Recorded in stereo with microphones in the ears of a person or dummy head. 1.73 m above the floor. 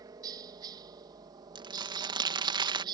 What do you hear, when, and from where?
0.0 s a helicopter: 20° right (ahead or behind); by 3.0 s 25° right (ahead or behind)
1.6 s crumpling: 25° right (ahead or behind)